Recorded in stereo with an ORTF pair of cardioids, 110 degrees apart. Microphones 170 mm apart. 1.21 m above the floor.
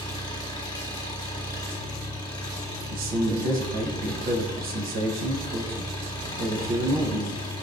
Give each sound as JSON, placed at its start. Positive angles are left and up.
{"t": 0.0, "sound": "an engine running", "azimuth_deg": 25, "distance_m": 1.1}
{"t": 2.9, "sound": "a man speaking", "azimuth_deg": -60, "distance_m": 0.8}